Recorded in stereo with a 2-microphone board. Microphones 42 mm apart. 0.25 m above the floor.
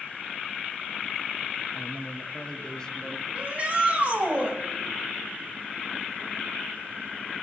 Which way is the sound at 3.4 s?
30° right (ahead or behind).